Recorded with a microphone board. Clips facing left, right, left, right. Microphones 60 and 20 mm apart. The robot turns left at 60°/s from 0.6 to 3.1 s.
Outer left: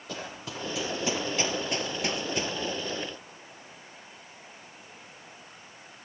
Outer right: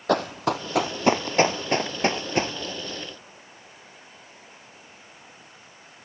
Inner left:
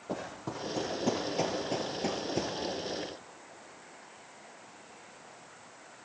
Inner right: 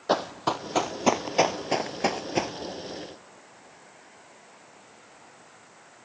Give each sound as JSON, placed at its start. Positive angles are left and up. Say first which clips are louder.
{"t": 0.1, "sound": "running footsteps", "louder": "outer right 15 dB, inner right 12 dB", "side_deg": -70, "distance_m": 1.4}